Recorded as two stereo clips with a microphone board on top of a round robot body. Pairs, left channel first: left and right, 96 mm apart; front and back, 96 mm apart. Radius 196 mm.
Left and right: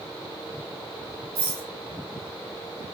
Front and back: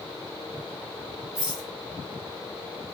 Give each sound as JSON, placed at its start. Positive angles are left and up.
{"t": 1.4, "sound": "a rattle", "azimuth_deg": -95, "distance_m": 0.7}